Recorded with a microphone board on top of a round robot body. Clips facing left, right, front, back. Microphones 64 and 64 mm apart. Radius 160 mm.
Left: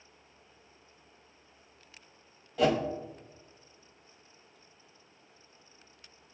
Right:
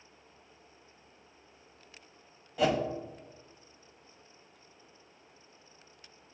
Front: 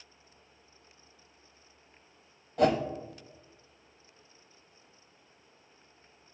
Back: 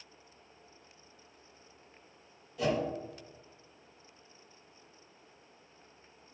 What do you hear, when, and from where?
2.6 s a whoosh: 5° right, 0.8 m